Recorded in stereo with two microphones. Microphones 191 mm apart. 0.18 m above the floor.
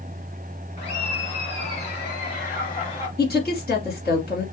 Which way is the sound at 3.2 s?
60° left (ahead or behind).